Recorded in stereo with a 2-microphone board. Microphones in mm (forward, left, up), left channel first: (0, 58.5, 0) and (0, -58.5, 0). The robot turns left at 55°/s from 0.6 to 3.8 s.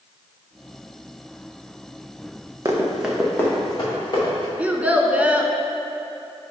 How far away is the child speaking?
About 0.6 m.